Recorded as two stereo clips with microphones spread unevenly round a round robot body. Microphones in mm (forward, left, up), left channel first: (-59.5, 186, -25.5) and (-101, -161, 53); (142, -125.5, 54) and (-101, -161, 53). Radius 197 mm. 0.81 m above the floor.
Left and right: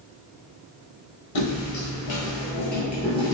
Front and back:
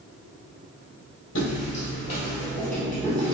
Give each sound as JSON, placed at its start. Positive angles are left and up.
{"t": 1.4, "sound": "footsteps", "azimuth_deg": 40, "distance_m": 1.1}